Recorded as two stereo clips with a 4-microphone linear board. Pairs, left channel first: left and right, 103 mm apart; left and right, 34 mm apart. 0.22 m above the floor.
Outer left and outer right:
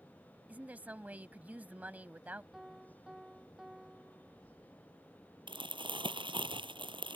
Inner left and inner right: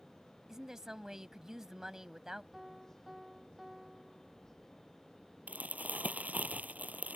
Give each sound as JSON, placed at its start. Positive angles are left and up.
{"t": 0.5, "sound": "a woman speaking", "side_deg": -15}
{"t": 2.5, "sound": "a piano", "side_deg": -5}
{"t": 5.5, "sound": "crumpling", "side_deg": -55}